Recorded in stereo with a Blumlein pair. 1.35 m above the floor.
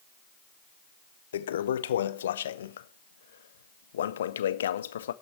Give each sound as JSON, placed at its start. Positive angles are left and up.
{"t": 1.3, "sound": "a toilet flushing", "azimuth_deg": 65, "distance_m": 0.5}